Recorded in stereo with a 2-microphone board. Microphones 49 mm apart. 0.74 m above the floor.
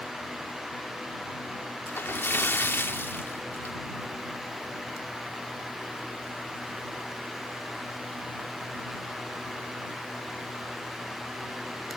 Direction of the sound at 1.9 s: 50° left (ahead or behind).